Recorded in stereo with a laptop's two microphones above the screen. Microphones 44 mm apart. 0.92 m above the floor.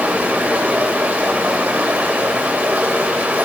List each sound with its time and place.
0.0 s running water: 35° right (ahead or behind), 3.5 m